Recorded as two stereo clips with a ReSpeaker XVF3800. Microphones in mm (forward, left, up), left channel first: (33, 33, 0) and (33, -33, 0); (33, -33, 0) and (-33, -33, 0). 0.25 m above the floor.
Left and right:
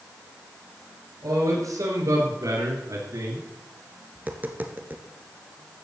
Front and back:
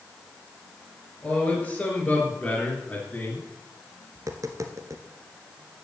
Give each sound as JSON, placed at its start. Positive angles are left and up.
{"t": 1.2, "sound": "a man speaking", "azimuth_deg": -70, "distance_m": 5.0}
{"t": 4.2, "sound": "tapping", "azimuth_deg": -150, "distance_m": 1.6}